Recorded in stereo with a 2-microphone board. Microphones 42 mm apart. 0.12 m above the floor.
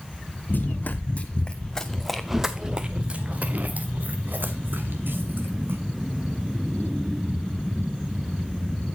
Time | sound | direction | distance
0.5 | running footsteps | 50° left (ahead or behind) | 1.1 m